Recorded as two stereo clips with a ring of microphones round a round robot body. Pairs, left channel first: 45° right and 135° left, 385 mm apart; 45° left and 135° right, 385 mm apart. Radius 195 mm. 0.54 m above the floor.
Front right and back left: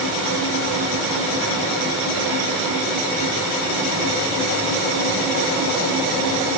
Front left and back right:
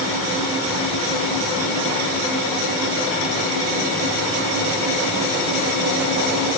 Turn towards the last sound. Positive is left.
No sound to turn to.